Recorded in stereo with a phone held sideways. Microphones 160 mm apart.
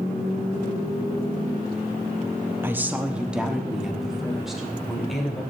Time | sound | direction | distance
2.6 | a woman speaking | 15° right (ahead or behind) | 0.7 m